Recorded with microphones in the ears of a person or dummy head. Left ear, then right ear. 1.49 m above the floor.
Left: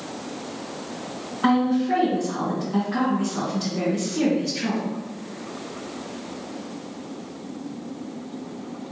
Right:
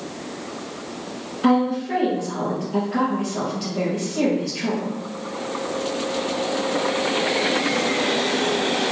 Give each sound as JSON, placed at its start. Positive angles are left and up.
{"t": 1.4, "sound": "a woman speaking", "side_deg": 30, "distance_m": 1.8}